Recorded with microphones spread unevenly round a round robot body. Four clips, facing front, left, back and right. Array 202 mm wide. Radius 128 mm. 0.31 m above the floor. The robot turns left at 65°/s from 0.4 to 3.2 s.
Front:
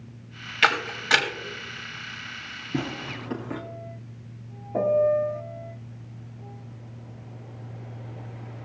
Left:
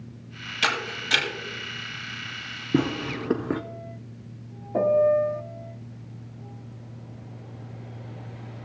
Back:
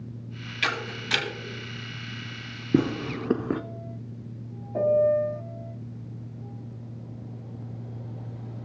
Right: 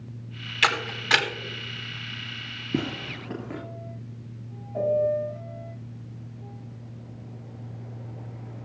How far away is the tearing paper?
About 0.5 m.